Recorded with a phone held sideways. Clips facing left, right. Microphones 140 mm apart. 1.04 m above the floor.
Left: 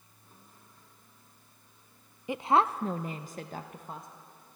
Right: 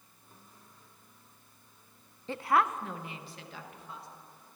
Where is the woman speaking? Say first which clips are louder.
Left 2 dB; 15° left (ahead or behind), 0.6 m; by 4.1 s 50° left (ahead or behind), 1.6 m.